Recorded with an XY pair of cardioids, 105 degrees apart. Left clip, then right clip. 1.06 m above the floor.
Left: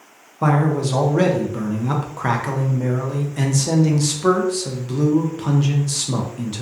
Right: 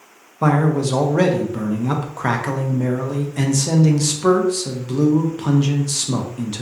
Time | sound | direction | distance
0.4 | a man speaking | 10° right | 0.5 m